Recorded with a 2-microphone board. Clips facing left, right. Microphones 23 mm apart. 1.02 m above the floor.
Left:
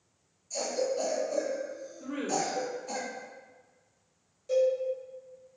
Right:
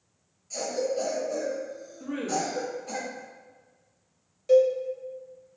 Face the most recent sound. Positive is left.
turn(degrees=-40)  # may be behind; listen again after turning